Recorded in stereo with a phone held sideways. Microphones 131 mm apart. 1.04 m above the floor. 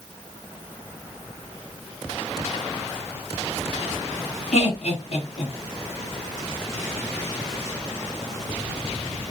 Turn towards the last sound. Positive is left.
turn(degrees=65)  # may be behind; listen again after turning